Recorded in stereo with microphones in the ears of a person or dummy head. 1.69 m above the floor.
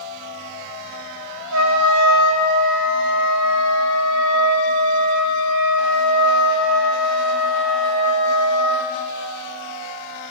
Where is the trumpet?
80° right, 1.7 m.